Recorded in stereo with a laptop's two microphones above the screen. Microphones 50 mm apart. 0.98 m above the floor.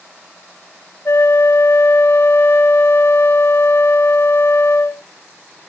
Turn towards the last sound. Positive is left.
turn(degrees=55)  # may be behind; listen again after turning